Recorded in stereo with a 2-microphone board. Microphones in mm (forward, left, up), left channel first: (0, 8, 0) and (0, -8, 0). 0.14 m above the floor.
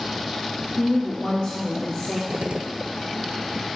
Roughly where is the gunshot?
Right.